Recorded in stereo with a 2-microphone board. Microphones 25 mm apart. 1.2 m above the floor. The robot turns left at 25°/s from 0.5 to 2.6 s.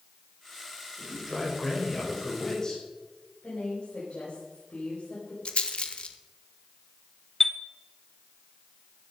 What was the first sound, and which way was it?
A man speaking, 165° right.